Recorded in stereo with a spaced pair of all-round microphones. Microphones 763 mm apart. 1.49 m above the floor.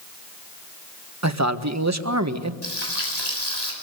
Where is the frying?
60° left (ahead or behind), 7.5 m.